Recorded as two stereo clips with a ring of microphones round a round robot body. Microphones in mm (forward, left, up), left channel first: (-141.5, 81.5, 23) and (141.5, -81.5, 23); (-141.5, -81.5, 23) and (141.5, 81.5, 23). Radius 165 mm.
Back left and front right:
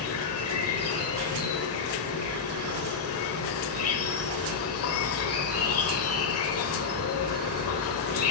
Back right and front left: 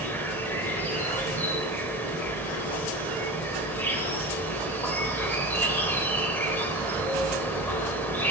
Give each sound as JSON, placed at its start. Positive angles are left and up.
{"t": 0.0, "sound": "an insect", "azimuth_deg": 130, "distance_m": 1.0}